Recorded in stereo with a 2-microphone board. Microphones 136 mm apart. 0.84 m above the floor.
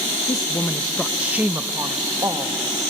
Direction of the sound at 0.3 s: 30° left (ahead or behind).